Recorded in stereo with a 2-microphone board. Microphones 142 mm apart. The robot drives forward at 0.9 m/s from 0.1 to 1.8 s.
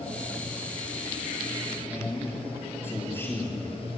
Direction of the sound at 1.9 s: 15° left (ahead or behind).